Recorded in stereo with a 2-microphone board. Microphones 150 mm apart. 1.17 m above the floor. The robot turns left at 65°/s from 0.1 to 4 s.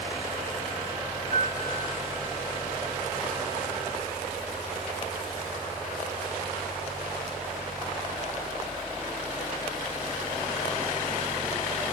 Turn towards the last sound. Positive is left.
turn(degrees=95)